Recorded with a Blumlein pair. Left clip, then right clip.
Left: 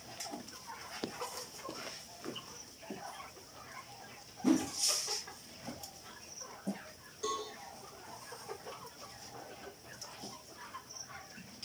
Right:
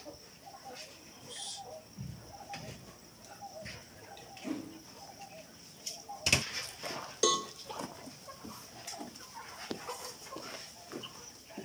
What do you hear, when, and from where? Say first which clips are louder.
4.4 s a whoosh: left 10 dB; 60° left, 1.3 m
7.2 s a cowbell: right 8 dB; 40° right, 1.5 m